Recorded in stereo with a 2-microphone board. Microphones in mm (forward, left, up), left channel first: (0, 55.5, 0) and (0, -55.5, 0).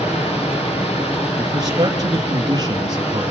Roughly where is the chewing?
I don't hear chewing.